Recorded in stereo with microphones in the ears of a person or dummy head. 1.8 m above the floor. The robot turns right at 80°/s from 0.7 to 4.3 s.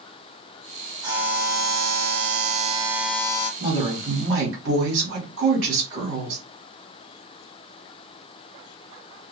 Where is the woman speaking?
165° right, 1.1 m; by 6.4 s 110° right, 1.1 m.